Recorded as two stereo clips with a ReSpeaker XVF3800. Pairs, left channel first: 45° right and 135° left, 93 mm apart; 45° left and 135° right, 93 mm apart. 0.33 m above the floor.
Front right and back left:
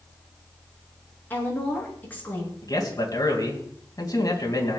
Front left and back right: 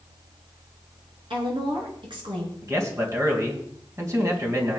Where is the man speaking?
85° right, 3 m.